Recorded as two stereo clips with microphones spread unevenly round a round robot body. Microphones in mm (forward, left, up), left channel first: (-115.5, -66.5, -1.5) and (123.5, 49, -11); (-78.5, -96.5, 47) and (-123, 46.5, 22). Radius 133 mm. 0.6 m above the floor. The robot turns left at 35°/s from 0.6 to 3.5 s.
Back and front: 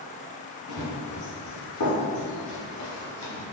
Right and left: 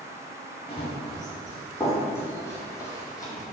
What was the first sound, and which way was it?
Running footsteps, 120° right.